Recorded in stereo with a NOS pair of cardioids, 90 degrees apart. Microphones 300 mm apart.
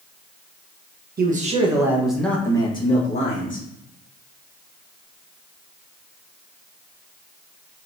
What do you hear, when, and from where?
1.2 s a man speaking: 30° right, 1.0 m; by 3.6 s 30° left, 1.6 m